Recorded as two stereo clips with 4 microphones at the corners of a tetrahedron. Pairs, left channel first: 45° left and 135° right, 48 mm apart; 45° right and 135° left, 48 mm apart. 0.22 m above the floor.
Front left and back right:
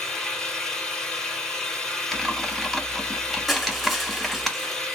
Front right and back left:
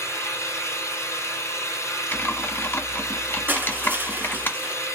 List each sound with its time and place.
0.0 s an engine running: 35° right, 1.6 m
2.1 s typing on a keyboard: 45° right, 1.1 m
3.5 s crushing: 135° left, 1.4 m